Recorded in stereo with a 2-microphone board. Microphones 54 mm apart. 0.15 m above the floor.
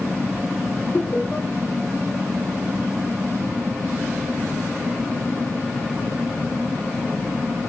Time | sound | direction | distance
0.9 | laughter | 30° left (ahead or behind) | 5.5 m